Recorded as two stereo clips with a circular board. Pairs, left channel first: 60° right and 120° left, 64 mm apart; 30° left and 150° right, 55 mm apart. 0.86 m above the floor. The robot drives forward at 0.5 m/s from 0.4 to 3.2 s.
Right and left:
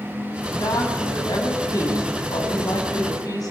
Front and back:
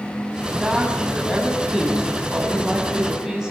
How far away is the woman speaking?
About 7.5 m.